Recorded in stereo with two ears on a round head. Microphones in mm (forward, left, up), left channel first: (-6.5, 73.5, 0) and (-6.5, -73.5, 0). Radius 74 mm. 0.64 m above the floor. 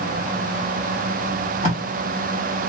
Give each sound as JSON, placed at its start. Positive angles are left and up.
{"t": 1.6, "sound": "tape being pulled", "side_deg": 45, "distance_m": 1.6}